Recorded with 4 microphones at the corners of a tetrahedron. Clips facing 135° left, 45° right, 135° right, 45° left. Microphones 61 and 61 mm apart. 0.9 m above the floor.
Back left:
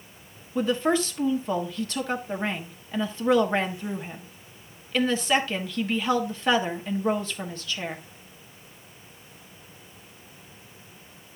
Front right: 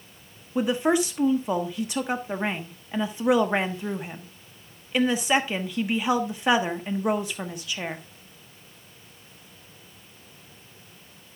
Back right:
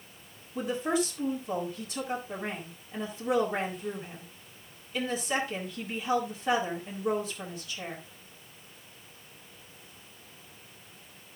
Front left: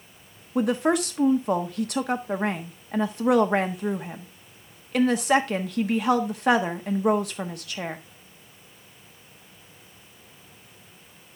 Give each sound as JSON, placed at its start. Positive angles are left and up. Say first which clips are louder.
{"t": 0.6, "sound": "a woman speaking", "louder": "front right 1 dB, front left 7 dB", "azimuth_deg": 30, "distance_m": 1.2}